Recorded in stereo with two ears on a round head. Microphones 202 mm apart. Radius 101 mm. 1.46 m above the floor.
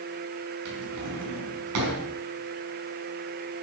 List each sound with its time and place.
0.7 s a drawer: 80° right, 5.5 m